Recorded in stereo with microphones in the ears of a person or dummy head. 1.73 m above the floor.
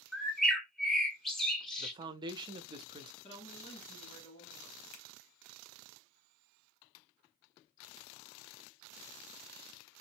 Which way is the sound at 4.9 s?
60° left (ahead or behind).